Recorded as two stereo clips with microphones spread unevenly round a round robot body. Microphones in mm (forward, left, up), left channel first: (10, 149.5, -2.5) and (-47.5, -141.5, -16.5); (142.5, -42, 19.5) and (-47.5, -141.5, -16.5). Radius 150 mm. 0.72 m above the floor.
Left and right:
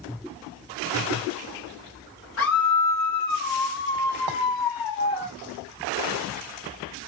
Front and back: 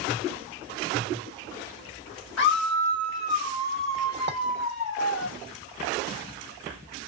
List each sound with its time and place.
2.4 s a scream: 30° left, 1.1 m; by 5.3 s 70° left, 2 m
4.3 s a clink: 115° right, 1.5 m